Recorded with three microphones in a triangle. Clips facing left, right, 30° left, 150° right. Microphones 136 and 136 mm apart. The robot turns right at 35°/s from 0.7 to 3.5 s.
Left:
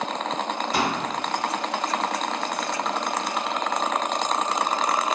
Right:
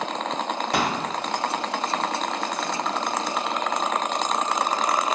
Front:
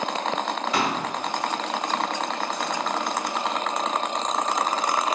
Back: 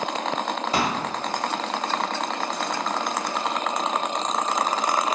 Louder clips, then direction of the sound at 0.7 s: Right 1 dB, back 1 dB; 95° right.